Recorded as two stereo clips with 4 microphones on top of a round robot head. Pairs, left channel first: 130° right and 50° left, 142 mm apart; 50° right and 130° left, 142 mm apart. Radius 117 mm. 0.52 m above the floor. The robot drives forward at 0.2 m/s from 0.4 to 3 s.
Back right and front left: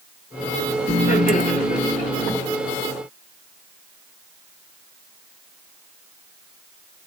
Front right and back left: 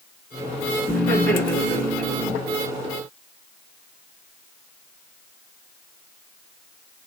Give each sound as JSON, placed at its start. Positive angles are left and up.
{"t": 0.9, "sound": "laughter", "azimuth_deg": -110, "distance_m": 1.8}